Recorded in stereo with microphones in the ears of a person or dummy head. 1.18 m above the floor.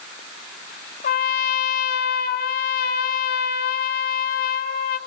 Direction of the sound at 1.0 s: 55° left (ahead or behind).